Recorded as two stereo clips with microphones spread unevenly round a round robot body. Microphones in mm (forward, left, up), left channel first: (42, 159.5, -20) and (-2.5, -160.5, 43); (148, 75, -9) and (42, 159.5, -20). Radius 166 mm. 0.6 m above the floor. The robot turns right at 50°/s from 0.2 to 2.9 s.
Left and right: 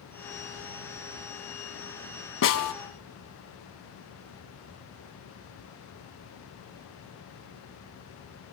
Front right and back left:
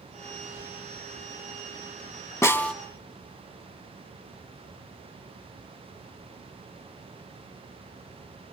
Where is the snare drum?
30° left, 3 m; by 2.7 s 45° left, 3 m.